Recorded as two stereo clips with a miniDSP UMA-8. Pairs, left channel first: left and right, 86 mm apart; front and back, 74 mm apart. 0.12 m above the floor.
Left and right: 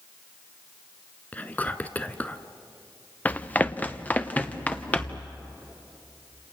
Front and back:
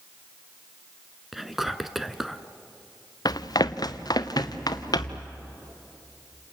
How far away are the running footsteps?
About 0.8 m.